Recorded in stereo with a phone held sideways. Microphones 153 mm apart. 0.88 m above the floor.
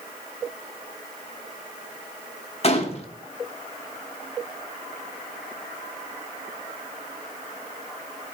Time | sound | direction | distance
2.6 | a gunshot | 40° left (ahead or behind) | 1.0 m